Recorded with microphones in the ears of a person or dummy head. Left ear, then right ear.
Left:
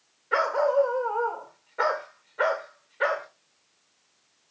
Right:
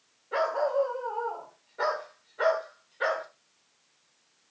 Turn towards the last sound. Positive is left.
turn(degrees=15)  # may be behind; listen again after turning